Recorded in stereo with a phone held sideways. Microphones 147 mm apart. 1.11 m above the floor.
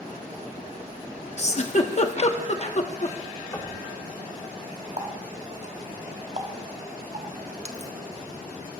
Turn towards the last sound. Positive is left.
turn(degrees=-50)  # may be behind; listen again after turning